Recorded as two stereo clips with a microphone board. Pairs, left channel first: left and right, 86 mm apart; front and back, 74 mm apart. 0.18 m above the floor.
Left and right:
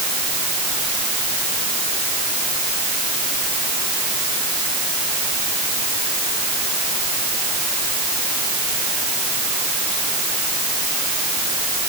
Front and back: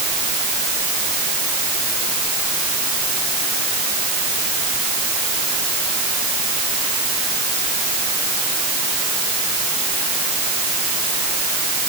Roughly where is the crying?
No crying in this recording.